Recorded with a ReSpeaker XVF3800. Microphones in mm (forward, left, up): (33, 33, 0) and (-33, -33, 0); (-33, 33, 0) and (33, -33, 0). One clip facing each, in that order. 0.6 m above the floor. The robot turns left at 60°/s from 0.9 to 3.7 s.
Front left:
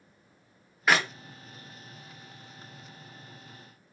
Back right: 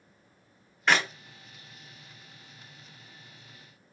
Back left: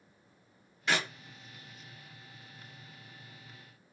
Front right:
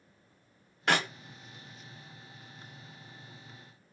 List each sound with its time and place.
0.9 s a clap: 35° right, 0.6 m; by 1.1 s 50° right, 0.6 m